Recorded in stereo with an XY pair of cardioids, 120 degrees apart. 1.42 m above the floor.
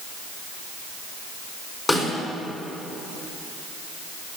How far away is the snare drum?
About 4.5 m.